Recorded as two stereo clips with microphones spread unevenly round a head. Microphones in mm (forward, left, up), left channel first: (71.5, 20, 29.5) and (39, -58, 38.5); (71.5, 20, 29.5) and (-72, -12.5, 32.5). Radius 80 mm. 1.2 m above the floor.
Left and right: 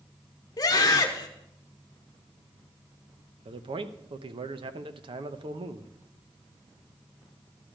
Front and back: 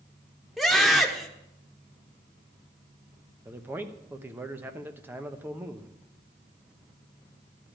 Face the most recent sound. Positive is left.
turn(degrees=-90)